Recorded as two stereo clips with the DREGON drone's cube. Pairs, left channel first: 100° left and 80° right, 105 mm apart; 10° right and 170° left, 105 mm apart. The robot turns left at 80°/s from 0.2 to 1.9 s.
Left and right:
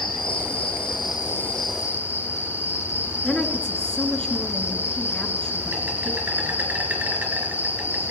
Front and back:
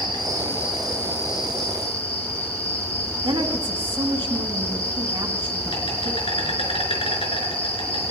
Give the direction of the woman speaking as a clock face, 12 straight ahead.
6 o'clock.